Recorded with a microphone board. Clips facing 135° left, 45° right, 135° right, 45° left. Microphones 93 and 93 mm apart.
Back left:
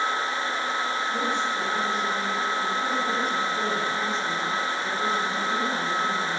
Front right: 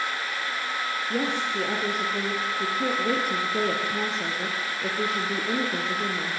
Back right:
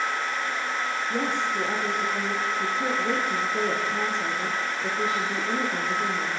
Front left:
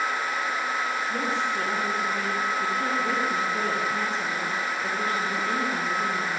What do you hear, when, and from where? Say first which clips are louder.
1.1 s a woman speaking: back left 1 dB, even; 60° right, 4.5 m